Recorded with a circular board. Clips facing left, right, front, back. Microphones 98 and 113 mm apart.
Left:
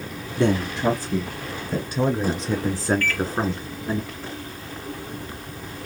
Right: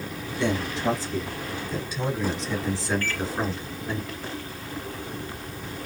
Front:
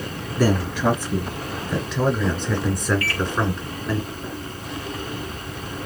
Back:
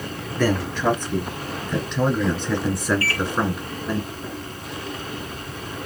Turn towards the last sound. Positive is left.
turn(degrees=-140)